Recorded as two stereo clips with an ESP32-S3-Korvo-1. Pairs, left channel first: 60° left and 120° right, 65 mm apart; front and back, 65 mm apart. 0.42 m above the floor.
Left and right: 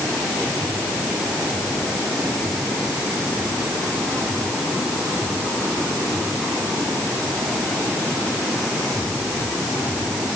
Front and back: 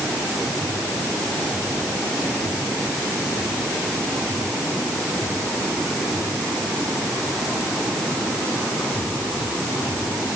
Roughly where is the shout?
No shout in this recording.